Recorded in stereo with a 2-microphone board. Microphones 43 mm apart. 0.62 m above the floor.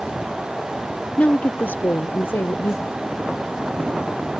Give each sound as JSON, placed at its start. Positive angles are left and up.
{"t": 1.2, "sound": "a woman speaking", "side_deg": 40}